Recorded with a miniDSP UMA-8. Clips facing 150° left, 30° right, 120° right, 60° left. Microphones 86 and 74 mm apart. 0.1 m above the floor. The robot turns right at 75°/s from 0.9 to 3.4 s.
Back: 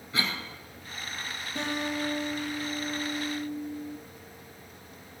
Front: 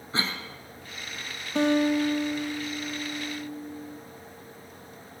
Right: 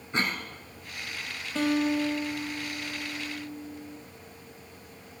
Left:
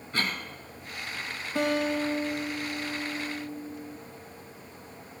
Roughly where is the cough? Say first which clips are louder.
Front 1 dB, right 2 dB; ahead right.